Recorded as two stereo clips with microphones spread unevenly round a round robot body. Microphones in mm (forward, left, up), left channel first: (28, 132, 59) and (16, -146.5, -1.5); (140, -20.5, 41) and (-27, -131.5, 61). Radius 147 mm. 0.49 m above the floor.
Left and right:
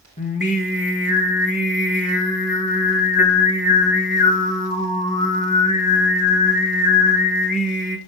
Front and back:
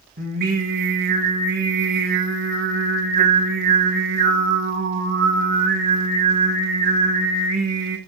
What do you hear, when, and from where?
0.2 s singing: 155° left, 2 m